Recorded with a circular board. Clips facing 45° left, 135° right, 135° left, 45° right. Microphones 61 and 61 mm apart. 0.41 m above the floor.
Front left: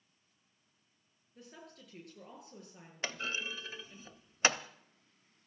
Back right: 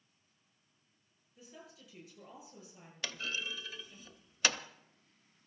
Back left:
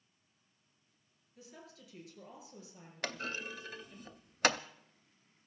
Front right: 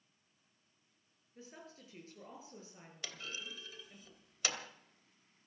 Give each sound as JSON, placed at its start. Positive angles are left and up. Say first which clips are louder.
{"t": 1.4, "sound": "a woman speaking", "louder": "front left 1 dB, front right 1 dB", "azimuth_deg": 10, "distance_m": 8.0}
{"t": 3.0, "sound": "a clunk", "louder": "front left 2 dB, back left 8 dB", "azimuth_deg": 105, "distance_m": 0.7}